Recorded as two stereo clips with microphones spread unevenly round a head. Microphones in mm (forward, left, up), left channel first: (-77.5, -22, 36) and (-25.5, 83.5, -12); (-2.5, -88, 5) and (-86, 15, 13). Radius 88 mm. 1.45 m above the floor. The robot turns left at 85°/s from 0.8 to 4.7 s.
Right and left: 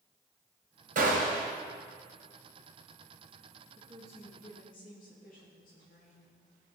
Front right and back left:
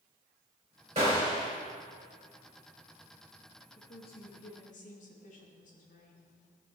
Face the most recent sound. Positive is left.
turn(degrees=-75)